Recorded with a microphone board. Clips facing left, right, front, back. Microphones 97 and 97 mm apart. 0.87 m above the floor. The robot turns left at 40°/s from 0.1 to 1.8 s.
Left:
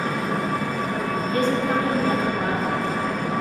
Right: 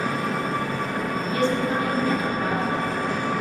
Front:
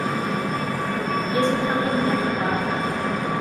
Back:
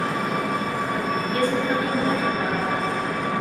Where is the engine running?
135° left, 1.8 m; by 3.4 s 70° left, 1.8 m.